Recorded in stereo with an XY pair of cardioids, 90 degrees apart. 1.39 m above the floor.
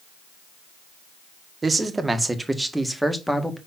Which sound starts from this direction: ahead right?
A man speaking, at 1.6 s.